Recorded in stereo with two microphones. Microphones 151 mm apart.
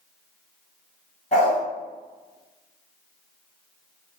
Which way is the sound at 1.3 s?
50° left (ahead or behind).